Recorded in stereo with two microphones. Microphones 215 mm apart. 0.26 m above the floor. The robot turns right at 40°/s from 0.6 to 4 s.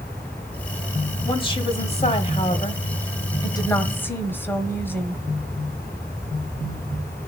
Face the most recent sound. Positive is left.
turn(degrees=10)  # may be behind; listen again after turning